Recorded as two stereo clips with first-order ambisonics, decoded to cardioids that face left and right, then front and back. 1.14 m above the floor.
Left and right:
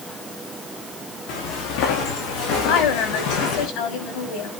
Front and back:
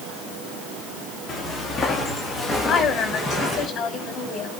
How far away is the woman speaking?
About 5.5 m.